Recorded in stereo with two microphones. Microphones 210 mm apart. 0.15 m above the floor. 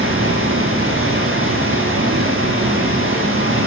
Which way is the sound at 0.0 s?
80° right.